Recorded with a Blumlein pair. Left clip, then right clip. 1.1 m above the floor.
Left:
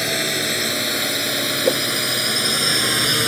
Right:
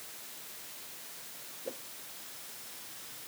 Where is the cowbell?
No cowbell in this recording.